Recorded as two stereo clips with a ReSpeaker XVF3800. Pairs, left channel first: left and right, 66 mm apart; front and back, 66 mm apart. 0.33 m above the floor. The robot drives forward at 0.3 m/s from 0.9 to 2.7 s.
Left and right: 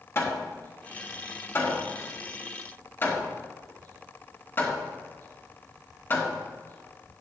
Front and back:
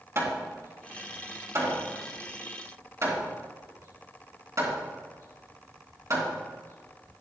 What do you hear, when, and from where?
0.1 s hammering: 140° left, 2.5 m; by 7.2 s 145° left, 3 m